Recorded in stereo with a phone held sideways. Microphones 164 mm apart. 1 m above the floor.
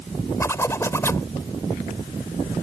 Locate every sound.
0.4 s a zipper: 15° left (ahead or behind)